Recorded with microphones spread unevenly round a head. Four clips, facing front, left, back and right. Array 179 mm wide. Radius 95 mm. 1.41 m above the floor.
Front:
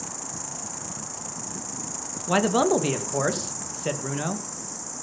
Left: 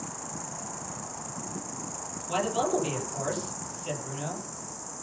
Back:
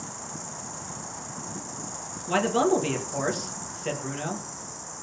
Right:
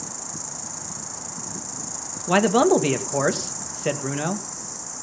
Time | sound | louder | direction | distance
0.0 | an insect | right 1 dB, front 1 dB | 15° right | 1.2 m
2.3 | a man speaking | right 10 dB, front 2 dB | 75° right | 1.7 m